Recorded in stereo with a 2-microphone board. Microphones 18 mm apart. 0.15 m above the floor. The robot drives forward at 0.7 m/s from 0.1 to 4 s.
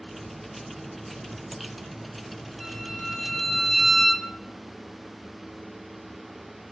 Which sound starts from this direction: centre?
A violin, at 2.6 s.